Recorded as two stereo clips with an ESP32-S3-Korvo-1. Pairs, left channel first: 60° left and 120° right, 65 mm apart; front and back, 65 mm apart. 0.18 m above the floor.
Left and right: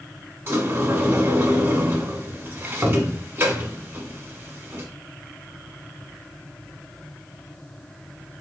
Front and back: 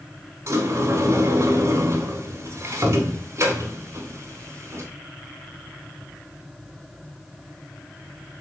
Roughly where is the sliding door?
Behind.